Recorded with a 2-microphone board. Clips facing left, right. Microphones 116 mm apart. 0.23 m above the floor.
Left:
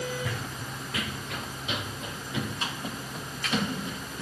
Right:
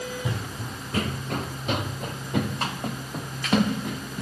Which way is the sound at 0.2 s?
20° right (ahead or behind).